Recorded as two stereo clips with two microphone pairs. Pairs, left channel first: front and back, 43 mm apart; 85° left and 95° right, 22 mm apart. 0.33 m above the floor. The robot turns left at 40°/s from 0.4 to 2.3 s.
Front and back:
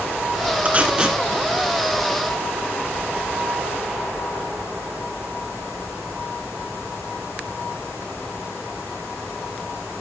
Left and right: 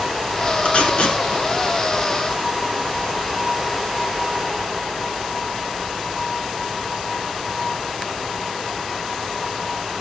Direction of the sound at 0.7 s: 125° left.